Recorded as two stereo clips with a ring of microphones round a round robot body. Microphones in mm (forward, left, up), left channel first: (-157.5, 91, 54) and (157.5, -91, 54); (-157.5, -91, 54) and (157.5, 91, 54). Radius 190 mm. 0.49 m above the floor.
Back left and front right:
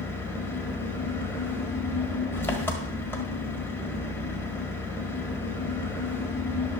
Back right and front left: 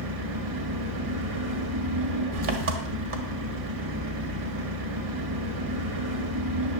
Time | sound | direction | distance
0.0 | an engine running | 65° left | 1.5 m